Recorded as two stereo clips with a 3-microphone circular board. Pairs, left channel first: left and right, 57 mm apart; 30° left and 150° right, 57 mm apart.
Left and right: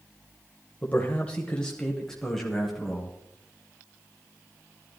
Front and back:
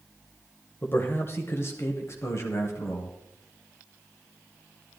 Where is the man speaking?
50° left, 1.3 m; by 3.2 s straight ahead, 2.5 m.